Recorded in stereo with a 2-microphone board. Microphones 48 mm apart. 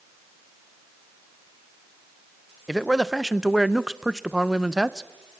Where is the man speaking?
10° right (ahead or behind), 0.5 m.